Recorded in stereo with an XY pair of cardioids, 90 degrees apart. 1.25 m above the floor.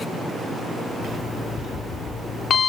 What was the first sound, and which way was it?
An alarm clock, 60° left.